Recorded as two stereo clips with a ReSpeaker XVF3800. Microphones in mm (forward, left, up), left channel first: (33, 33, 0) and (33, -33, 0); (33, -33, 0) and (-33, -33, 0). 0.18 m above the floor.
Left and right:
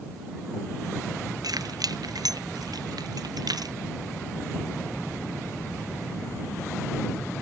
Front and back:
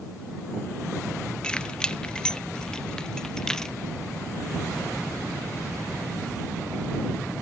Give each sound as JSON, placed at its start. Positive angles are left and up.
{"t": 1.4, "sound": "keys jangling", "azimuth_deg": -75}